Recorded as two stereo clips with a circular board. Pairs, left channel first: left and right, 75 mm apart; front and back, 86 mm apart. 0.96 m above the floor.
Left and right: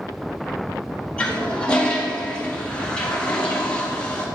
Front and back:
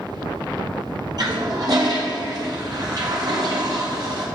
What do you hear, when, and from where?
1.2 s a toilet flushing: 160° left, 1.5 m